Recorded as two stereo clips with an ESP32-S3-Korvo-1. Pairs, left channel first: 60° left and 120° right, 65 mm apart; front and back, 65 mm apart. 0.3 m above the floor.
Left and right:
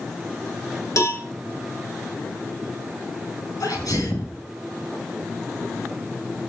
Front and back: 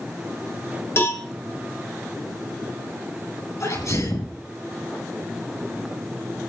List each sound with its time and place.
1.0 s a cowbell: 40° left, 1.9 m
3.6 s a sneeze: 35° left, 9.5 m